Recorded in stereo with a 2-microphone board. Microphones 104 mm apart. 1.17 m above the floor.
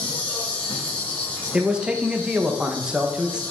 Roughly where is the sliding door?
No sliding door in this recording.